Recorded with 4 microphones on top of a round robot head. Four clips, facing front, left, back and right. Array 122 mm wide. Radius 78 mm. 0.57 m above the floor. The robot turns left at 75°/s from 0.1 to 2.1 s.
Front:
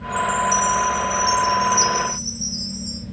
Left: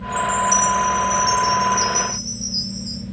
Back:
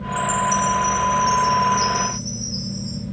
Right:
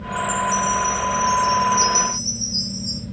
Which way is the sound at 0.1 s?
120° left.